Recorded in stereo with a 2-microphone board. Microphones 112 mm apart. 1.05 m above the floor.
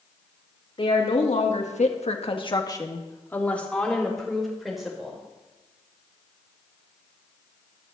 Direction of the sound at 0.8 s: 55° left (ahead or behind).